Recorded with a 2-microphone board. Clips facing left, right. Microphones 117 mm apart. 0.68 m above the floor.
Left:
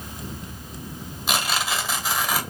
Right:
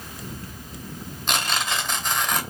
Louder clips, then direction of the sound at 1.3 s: Left 1 dB; 5° left (ahead or behind).